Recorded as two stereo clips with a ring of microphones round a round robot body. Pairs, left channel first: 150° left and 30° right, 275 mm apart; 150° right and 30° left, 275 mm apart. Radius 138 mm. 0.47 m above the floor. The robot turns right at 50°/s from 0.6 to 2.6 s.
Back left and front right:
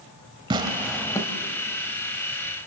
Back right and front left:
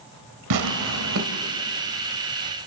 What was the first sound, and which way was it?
Tearing paper, 45° left.